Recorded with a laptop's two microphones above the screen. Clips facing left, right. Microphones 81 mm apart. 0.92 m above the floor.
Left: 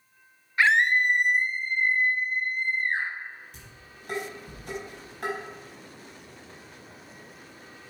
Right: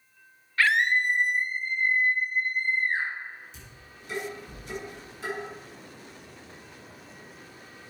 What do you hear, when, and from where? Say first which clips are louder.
0.6 s a scream: left 2 dB; 20° left (ahead or behind), 1.0 m; by 3.1 s 70° left (ahead or behind), 3 m
3.5 s dishes clattering: even; 55° left (ahead or behind), 4.5 m